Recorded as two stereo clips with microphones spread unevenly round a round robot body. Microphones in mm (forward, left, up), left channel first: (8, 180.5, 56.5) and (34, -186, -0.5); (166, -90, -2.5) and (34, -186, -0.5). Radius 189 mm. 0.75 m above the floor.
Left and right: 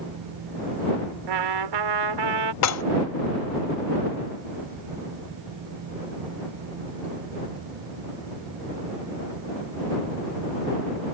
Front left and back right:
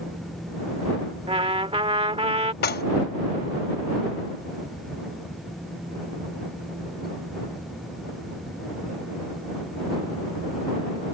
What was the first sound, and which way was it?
A trumpet, 90° right.